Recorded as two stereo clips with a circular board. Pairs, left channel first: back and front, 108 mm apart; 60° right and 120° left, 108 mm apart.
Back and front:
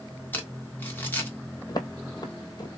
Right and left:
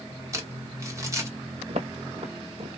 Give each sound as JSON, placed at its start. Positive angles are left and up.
{"t": 0.3, "sound": "crumpling", "azimuth_deg": 130, "distance_m": 1.3}
{"t": 1.7, "sound": "footsteps", "azimuth_deg": 130, "distance_m": 1.2}